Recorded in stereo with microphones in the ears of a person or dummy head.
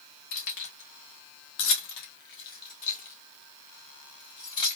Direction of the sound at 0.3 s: 60° left (ahead or behind).